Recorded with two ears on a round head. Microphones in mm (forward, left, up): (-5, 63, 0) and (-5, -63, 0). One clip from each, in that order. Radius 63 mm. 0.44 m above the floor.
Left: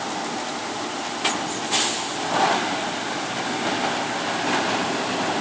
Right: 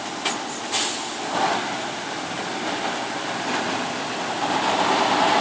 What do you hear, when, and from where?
Only background noise.